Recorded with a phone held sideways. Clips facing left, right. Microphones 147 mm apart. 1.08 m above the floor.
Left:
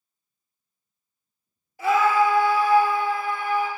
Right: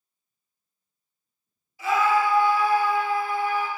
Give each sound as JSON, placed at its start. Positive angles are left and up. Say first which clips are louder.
{"t": 1.8, "sound": "a scream", "louder": "left 2 dB", "side_deg": 55, "distance_m": 0.6}